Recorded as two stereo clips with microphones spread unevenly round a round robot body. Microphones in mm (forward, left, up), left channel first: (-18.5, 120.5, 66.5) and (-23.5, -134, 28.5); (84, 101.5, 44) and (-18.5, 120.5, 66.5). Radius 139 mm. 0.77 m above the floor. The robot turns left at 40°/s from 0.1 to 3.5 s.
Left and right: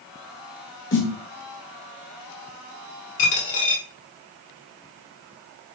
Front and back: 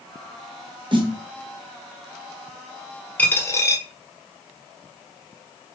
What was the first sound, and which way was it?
A snare drum, 130° left.